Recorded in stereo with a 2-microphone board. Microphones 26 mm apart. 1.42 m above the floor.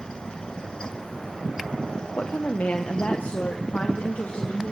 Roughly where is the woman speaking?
Left.